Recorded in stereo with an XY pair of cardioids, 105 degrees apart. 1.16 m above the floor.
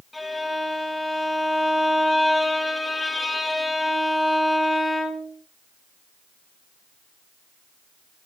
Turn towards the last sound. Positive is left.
turn(degrees=15)